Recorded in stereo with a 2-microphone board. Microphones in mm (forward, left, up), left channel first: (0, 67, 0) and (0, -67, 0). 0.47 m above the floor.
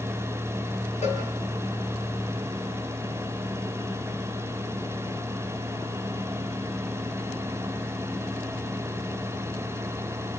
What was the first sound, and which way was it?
A cowbell, 55° left (ahead or behind).